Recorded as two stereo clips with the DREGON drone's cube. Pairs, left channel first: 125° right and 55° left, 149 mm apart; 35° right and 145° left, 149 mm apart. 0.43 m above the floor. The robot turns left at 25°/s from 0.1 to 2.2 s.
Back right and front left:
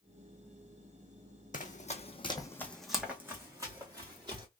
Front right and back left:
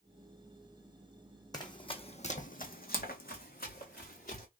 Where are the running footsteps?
95° right, 1.0 m; by 4.5 s 5° right, 2.5 m.